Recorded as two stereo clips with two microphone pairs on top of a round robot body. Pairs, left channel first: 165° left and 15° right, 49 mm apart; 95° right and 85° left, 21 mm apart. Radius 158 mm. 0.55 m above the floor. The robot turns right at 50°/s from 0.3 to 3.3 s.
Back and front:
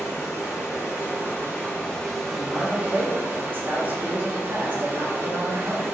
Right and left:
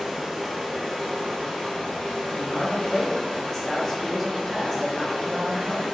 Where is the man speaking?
85° right, 1.8 m; by 5.8 s 35° right, 1.8 m.